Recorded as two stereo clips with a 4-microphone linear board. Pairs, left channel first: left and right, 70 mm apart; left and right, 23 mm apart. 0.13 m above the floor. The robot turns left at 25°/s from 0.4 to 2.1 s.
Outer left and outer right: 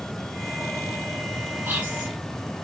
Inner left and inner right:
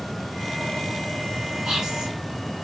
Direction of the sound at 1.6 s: 30° right (ahead or behind).